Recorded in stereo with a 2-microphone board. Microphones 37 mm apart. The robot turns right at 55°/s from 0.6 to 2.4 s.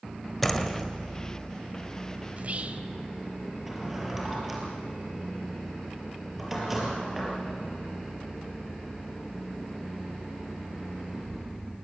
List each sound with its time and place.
0.4 s a door slam: 5° left (ahead or behind), 1.4 m; by 0.9 s 5° right (ahead or behind), 1.4 m
2.3 s whispering: 45° right (ahead or behind), 1.4 m
3.7 s a drawer: 5° right (ahead or behind), 4.5 m